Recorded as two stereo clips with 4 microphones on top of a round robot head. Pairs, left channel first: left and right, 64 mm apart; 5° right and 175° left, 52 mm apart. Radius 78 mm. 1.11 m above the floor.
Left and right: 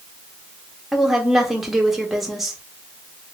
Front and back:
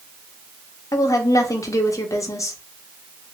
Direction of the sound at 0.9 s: Straight ahead.